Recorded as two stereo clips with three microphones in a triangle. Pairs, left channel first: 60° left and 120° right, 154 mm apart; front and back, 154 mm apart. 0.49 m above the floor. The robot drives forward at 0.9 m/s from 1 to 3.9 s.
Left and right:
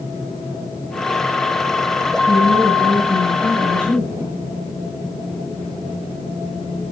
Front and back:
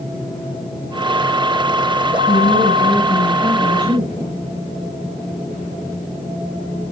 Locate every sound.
2.3 s a woman speaking: 20° right, 7.5 m; by 4.4 s 25° right, 6.5 m